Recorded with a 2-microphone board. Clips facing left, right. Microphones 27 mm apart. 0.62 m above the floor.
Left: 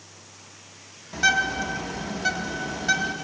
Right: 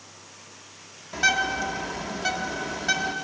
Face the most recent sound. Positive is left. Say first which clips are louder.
# left 1 dB
turn(degrees=-5)  # may be behind; listen again after turning